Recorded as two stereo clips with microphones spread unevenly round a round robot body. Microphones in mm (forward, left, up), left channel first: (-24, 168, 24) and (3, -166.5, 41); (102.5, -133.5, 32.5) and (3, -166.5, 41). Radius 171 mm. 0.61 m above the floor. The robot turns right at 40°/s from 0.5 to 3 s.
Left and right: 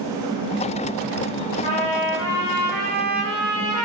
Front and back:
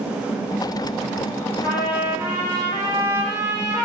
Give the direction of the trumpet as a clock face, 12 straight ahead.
9 o'clock.